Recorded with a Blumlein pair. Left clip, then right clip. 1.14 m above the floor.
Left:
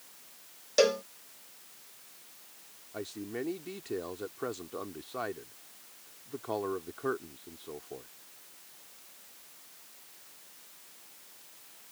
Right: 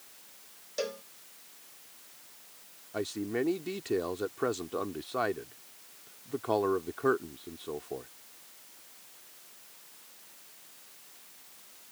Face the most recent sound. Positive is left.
turn(degrees=-15)